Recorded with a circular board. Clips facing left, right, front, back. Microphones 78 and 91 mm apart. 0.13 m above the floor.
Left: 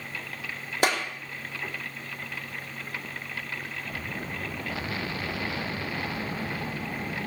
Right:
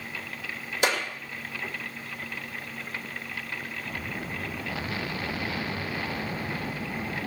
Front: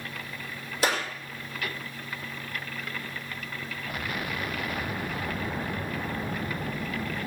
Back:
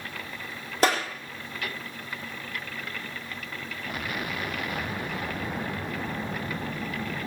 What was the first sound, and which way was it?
A clap, 135° left.